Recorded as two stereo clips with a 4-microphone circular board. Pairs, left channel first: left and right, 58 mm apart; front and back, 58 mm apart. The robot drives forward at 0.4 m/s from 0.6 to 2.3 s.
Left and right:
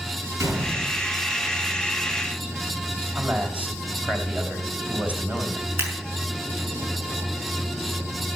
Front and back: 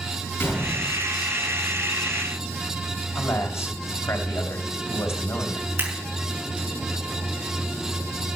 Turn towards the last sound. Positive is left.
turn(degrees=-140)